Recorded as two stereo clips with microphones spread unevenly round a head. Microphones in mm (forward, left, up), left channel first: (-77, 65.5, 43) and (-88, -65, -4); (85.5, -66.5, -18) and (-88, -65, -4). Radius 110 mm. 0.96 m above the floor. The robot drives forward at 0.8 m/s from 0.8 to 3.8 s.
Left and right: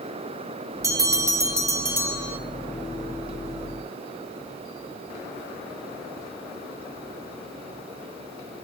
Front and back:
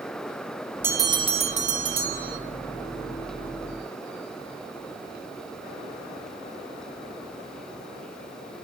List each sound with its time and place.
0.8 s a bell: 105° right, 1.1 m; by 2.4 s 155° right, 1.8 m